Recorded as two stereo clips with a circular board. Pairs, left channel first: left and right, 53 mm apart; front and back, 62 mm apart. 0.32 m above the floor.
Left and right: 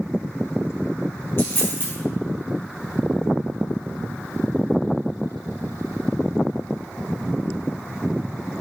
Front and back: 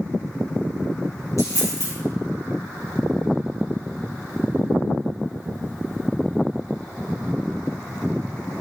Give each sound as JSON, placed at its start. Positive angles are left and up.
{"t": 1.4, "sound": "a dropped coin", "azimuth_deg": 40, "distance_m": 3.0}